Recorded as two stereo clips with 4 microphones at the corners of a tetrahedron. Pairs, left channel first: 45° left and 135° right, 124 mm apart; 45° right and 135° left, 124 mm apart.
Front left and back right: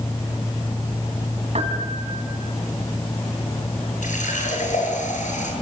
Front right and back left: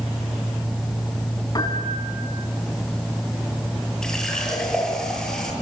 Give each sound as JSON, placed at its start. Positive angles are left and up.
{"t": 1.6, "sound": "a piano", "azimuth_deg": -100, "distance_m": 4.5}
{"t": 4.0, "sound": "a running tap", "azimuth_deg": 40, "distance_m": 8.0}